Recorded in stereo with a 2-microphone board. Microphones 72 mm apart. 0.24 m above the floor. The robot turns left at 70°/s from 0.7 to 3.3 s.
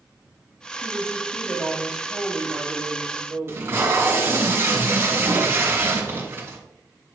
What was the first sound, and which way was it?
A woman speaking, 60° left.